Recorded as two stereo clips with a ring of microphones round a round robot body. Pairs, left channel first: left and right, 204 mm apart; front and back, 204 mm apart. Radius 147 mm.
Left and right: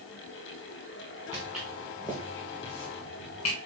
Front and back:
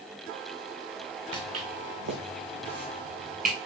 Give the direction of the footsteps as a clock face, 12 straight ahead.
6 o'clock.